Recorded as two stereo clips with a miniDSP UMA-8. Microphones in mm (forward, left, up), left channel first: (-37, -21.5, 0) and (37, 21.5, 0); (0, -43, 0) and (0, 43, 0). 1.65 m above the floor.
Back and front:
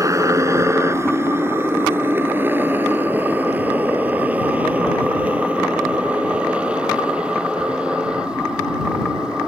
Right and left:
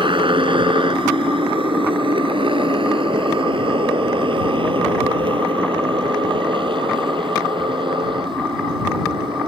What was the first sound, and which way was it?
A motorcycle, 80° left.